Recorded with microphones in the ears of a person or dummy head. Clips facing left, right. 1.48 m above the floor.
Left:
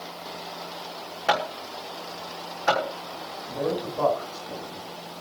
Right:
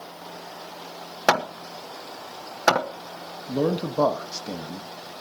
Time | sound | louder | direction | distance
1.3 | hammering | right 3 dB | 75° right (ahead or behind) | 1.3 m
3.5 | a man speaking | right 4 dB | 55° right (ahead or behind) | 1.6 m